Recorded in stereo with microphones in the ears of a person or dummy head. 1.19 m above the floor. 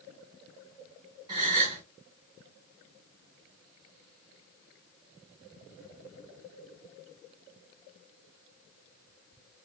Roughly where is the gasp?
Right.